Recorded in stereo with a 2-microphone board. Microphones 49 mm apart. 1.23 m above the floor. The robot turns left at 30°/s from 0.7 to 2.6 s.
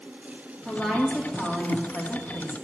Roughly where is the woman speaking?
Behind.